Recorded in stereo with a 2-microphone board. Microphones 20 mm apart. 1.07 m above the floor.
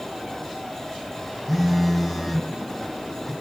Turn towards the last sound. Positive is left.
turn(degrees=0)  # may be behind; listen again after turning